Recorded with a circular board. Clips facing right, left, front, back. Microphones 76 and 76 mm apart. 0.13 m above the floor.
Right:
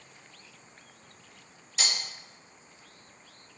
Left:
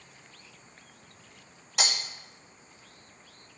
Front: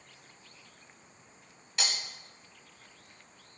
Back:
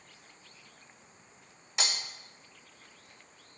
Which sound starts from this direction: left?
Breaking glass, at 1.8 s.